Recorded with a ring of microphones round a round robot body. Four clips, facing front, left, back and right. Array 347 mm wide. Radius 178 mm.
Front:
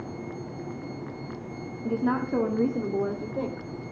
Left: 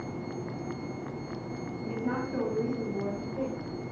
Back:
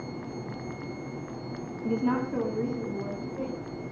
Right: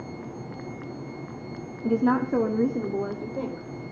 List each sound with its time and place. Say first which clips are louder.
1.8 s a woman speaking: right 11 dB, front 1 dB; 95° right, 1.8 m; by 3.7 s 30° right, 3 m